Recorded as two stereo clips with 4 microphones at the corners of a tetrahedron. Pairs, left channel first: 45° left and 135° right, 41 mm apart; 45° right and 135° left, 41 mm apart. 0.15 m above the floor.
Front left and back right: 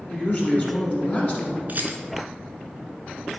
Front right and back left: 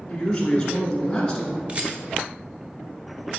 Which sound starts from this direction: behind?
A rattle, at 1.7 s.